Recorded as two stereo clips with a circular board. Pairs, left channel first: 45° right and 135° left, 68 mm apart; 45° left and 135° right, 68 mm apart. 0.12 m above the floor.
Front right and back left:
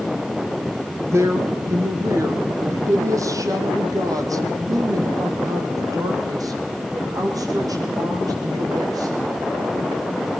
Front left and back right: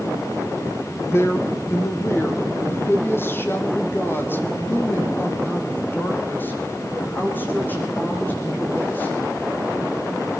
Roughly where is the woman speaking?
Left.